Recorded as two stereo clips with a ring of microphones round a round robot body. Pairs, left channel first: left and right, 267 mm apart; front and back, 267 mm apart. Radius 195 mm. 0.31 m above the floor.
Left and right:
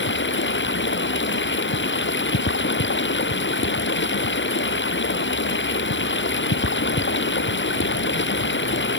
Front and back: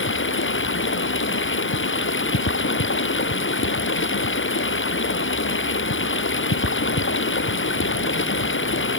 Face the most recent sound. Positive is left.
turn(degrees=45)